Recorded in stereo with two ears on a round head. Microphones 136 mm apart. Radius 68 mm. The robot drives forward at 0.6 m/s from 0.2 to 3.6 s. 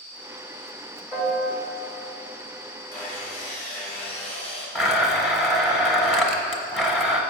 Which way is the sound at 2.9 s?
15° left (ahead or behind).